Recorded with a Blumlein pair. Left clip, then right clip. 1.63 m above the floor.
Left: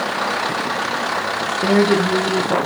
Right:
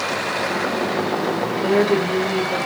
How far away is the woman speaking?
About 1.2 m.